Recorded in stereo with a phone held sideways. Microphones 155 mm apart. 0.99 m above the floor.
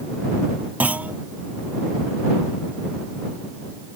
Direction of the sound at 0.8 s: 10° right (ahead or behind).